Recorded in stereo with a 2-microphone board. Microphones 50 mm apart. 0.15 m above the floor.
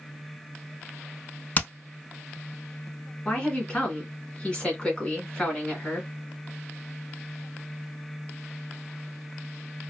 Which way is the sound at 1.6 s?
35° left (ahead or behind).